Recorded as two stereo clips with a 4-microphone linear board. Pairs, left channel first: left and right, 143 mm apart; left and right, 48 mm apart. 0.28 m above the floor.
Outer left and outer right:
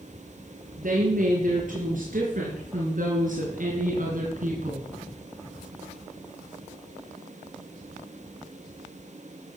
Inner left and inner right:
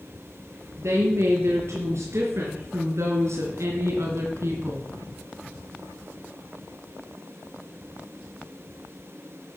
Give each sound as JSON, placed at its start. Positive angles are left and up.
{"t": 0.8, "sound": "a woman speaking", "side_deg": -70, "distance_m": 5.5}